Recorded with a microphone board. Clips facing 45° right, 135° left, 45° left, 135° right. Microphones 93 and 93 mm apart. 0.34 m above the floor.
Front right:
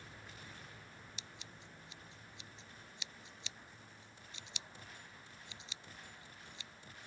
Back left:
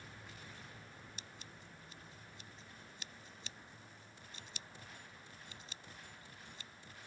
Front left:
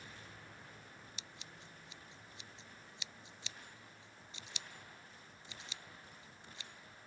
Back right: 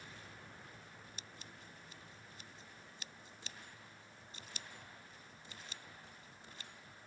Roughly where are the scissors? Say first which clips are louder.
Even, even; behind.